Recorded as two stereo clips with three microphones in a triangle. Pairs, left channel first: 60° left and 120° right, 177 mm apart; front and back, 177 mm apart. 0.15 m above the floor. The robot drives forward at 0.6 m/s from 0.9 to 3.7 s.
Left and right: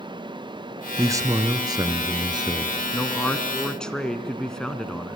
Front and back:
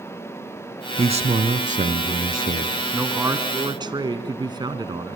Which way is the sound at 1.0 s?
Straight behind.